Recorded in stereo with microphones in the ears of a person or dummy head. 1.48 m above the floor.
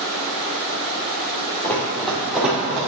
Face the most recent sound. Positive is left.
turn(degrees=-10)  # may be behind; listen again after turning